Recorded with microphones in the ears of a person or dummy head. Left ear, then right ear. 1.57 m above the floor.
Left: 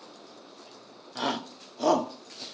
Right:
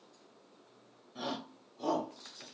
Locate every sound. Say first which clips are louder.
1.1 s a shout: left 9 dB; 50° left (ahead or behind), 0.8 m; by 2.5 s 65° left (ahead or behind), 0.7 m